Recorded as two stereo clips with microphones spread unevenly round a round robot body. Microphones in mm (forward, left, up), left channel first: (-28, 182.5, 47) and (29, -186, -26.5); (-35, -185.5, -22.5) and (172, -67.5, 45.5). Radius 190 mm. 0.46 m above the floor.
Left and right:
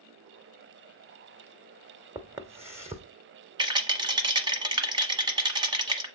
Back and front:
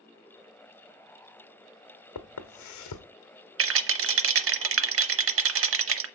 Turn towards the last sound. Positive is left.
turn(degrees=0)